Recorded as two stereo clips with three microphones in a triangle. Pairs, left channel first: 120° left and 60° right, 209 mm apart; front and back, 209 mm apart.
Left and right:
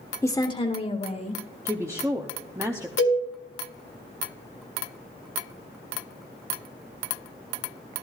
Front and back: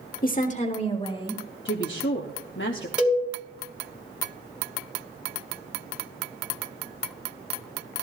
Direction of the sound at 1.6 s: 15° left.